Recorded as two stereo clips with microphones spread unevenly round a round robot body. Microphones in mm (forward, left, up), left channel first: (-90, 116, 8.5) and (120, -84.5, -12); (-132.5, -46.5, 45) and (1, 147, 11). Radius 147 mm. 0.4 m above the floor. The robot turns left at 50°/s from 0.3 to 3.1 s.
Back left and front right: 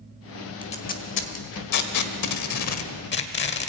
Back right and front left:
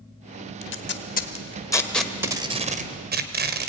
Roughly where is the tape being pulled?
Behind right.